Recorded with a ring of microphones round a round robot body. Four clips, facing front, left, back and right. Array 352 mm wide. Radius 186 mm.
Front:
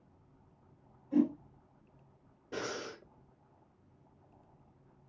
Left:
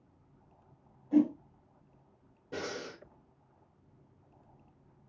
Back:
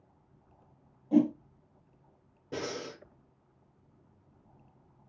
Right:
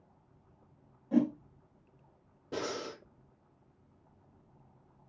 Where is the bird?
I don't hear a bird.